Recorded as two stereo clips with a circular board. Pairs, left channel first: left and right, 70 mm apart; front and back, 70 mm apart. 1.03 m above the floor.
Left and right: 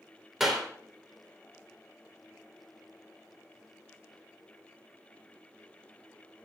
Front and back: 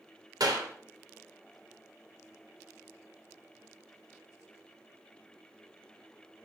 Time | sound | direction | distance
0.4 | a clap | 175° right | 3 m